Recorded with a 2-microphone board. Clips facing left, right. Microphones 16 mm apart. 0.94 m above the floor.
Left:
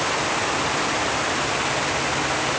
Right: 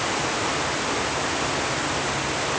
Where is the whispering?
I don't hear whispering.